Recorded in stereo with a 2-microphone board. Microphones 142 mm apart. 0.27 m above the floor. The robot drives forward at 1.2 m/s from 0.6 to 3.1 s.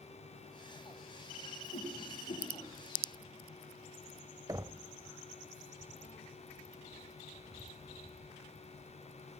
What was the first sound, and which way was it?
A whoosh, 75° left (ahead or behind).